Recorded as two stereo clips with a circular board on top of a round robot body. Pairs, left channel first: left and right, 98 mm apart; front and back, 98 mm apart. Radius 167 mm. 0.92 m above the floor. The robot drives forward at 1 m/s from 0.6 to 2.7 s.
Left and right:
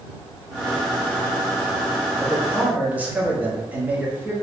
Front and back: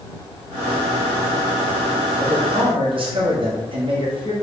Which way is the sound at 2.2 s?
160° right.